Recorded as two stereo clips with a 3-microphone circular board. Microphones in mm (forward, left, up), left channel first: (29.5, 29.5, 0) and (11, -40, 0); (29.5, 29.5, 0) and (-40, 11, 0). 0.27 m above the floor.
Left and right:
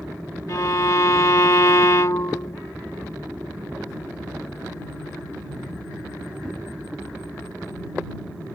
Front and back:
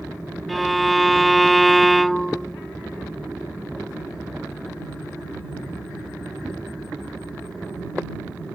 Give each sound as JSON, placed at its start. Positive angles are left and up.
{"t": 0.5, "sound": "a violin", "azimuth_deg": 105}